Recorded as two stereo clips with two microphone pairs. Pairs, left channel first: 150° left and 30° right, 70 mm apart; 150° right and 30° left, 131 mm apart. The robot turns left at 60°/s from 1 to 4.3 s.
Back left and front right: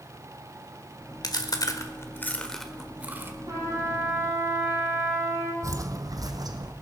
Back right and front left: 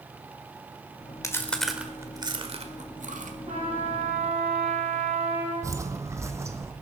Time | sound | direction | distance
1.2 | chewing | 145° left | 1.5 m
3.5 | a trumpet | straight ahead | 8.5 m
5.6 | footsteps | 30° right | 0.9 m